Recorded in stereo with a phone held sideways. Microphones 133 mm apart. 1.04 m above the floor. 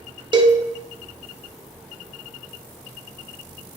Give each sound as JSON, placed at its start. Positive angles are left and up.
{"t": 0.3, "sound": "a cowbell", "side_deg": -35, "distance_m": 0.6}